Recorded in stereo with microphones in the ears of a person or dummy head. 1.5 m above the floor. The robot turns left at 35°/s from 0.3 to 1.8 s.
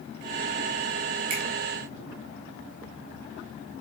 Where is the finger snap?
30° right (ahead or behind), 5 m; by 1.4 s 35° right (ahead or behind), 5 m.